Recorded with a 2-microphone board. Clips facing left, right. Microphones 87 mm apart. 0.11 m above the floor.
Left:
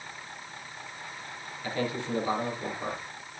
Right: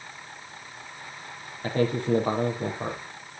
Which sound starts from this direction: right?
A man speaking, at 1.6 s.